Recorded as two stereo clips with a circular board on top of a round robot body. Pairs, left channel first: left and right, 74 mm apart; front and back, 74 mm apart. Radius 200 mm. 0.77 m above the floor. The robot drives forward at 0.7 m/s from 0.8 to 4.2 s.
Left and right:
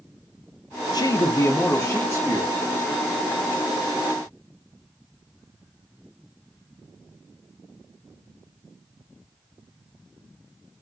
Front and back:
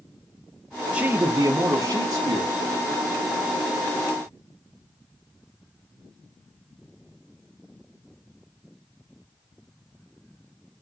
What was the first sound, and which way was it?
A man speaking, 105° left.